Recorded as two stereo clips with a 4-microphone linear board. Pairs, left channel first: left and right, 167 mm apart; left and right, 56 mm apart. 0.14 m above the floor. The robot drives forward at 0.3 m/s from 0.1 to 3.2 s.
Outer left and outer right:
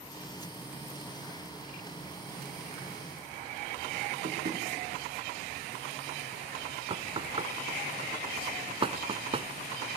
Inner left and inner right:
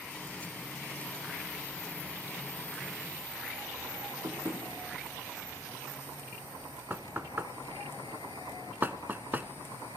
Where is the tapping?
65° right (ahead or behind), 5 m.